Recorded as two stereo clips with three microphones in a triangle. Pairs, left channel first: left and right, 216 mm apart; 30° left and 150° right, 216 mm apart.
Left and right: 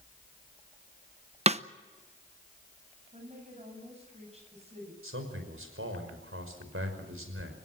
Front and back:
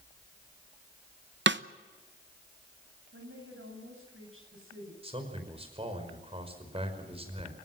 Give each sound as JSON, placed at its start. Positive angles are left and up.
{"t": 1.5, "sound": "a snare drum", "azimuth_deg": -145, "distance_m": 0.8}
{"t": 3.1, "sound": "a woman speaking", "azimuth_deg": -150, "distance_m": 9.0}
{"t": 5.0, "sound": "a man speaking", "azimuth_deg": -90, "distance_m": 5.5}